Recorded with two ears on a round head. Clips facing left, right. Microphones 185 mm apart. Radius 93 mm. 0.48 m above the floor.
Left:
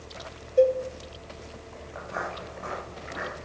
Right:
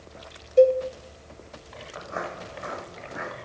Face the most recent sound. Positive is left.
turn(degrees=-15)  # may be behind; listen again after turning